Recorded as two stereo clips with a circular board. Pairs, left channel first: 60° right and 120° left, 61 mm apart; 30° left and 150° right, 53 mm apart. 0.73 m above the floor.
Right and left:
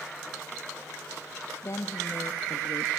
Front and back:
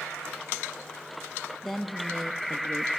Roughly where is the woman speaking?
Ahead right.